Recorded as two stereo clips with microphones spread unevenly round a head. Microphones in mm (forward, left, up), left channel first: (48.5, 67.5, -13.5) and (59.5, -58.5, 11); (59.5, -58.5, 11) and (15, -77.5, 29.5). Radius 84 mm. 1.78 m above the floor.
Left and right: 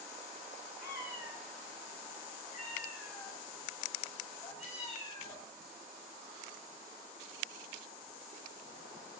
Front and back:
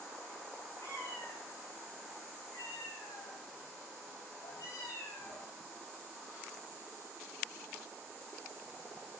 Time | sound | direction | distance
0.8 | a cat meowing | 105° left | 3.5 m